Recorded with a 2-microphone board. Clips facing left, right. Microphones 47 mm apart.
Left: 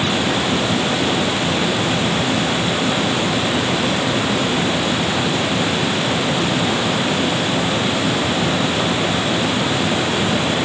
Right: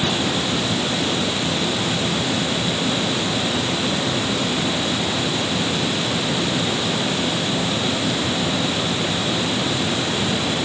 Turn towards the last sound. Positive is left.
No sound to turn to.